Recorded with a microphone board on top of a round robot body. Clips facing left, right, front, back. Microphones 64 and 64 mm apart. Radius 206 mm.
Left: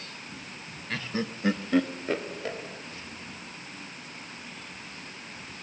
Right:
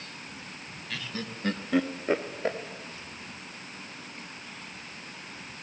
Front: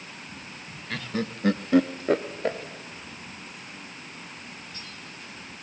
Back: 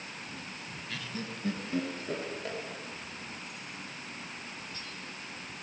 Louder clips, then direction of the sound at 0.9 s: Left 5 dB, front 10 dB; 40° left.